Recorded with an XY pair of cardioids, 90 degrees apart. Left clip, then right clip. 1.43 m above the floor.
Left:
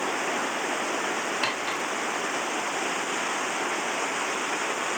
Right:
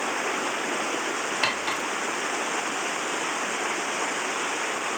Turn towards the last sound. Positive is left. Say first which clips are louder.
# right 2 dB
turn(degrees=-30)